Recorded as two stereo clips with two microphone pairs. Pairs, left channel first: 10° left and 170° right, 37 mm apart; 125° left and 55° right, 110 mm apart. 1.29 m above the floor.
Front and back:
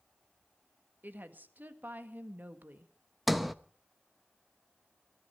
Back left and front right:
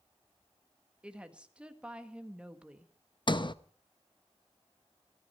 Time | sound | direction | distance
1.0 | a woman speaking | 135° right | 1.7 m
3.3 | a sliding door | 105° left | 0.7 m